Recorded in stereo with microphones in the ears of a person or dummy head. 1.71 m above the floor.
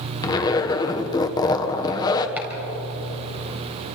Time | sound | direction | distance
0.2 | a zipper | 20° left (ahead or behind) | 1.4 m
2.4 | chopping | 10° right (ahead or behind) | 4.5 m